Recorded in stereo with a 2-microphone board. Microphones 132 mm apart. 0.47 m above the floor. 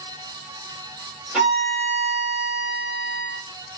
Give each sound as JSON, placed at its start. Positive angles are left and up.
{"t": 1.3, "sound": "a violin", "side_deg": -5, "distance_m": 1.4}